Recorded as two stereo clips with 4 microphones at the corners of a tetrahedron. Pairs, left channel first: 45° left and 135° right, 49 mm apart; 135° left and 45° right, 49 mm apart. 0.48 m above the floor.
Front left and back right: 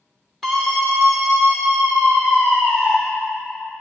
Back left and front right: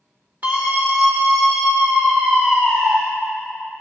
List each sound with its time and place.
0.4 s a scream: 40° right, 1.8 m; by 2.9 s 10° right, 4 m